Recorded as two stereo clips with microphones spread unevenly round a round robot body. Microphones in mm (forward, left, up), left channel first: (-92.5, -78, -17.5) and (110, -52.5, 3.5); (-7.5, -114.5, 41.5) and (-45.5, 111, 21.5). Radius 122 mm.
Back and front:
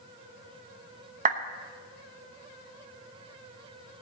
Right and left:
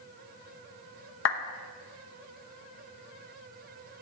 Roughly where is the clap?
Ahead right.